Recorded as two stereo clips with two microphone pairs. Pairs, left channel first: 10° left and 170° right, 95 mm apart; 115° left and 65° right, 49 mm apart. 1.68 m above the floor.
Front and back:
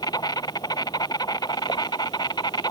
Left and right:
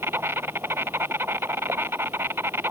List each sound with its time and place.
0.0 s an insect: 30° right